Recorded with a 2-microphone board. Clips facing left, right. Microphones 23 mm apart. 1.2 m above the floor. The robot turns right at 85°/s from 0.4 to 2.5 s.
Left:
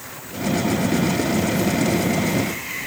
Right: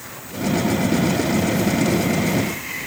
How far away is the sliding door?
I don't hear a sliding door.